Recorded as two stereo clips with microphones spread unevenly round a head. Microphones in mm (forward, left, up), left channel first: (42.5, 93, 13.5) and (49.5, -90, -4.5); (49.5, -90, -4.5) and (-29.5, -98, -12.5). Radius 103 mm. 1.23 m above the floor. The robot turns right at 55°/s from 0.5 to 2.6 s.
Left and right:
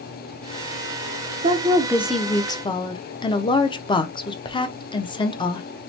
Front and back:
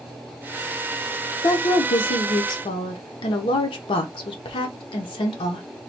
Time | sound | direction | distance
1.4 | a woman speaking | 40° right | 0.5 m